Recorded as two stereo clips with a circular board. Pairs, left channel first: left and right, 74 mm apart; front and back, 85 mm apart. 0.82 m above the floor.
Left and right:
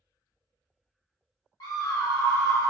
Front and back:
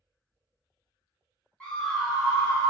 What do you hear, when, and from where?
1.6 s a scream: 75° left, 0.6 m; by 2.7 s 130° left, 0.7 m